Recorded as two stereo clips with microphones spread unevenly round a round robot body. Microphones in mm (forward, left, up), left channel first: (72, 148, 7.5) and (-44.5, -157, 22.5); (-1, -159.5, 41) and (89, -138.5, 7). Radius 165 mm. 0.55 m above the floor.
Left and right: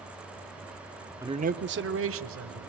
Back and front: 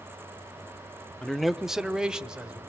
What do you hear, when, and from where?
1.2 s a man speaking: 35° right, 0.6 m; by 2.6 s 60° right, 1.9 m